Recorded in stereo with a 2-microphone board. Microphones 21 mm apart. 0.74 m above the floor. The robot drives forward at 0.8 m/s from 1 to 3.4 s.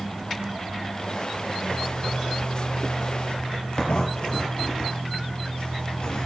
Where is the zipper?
65° left (ahead or behind), 3.5 m; by 6.3 s 45° left (ahead or behind), 4 m.